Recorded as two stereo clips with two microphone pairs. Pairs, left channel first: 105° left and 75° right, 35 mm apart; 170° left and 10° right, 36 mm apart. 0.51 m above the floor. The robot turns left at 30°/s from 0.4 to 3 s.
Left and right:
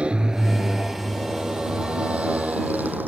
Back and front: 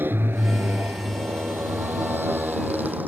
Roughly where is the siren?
No siren in this recording.